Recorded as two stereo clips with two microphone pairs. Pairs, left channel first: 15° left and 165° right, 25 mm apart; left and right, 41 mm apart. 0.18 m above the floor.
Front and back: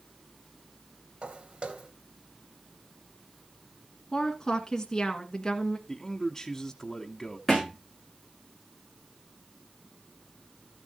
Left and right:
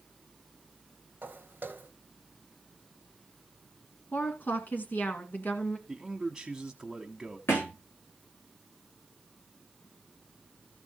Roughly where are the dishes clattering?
No dishes clattering in this recording.